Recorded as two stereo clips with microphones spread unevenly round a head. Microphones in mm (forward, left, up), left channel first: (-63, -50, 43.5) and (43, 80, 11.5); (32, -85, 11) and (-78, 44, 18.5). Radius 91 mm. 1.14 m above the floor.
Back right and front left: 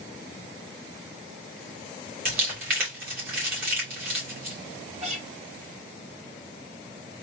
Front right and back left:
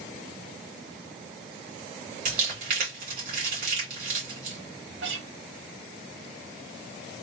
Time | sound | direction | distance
2.2 | crumpling | 85° left | 2.5 m
5.0 | a guitar | 105° left | 1.5 m